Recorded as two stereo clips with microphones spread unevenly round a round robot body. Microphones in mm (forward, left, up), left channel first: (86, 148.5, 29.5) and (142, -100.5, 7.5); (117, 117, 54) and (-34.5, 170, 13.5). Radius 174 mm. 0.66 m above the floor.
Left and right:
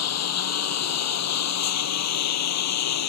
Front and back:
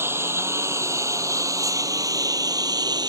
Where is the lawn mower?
85° left; by 3.1 s 95° left.